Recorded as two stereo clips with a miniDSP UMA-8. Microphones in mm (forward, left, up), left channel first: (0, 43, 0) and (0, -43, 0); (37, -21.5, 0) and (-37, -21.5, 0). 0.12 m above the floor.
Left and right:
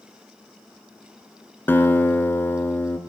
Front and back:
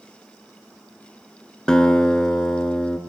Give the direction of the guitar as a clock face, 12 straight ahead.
10 o'clock.